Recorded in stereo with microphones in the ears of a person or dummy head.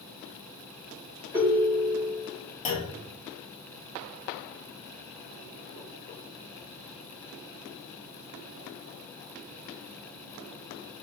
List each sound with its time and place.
1.3 s a ringtone: 10° right (ahead or behind), 1.2 m
2.6 s a clunk: 40° left (ahead or behind), 0.6 m